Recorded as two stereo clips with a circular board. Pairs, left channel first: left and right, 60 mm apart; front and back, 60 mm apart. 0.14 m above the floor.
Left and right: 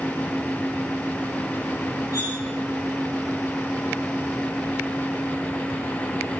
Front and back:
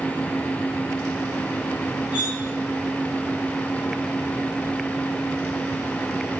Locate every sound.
2.1 s cutlery clinking: 110° left, 9 m